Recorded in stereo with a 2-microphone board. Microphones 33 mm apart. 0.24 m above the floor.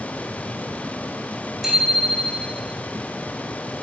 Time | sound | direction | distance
1.6 | a bicycle bell | 10° right (ahead or behind) | 9.5 m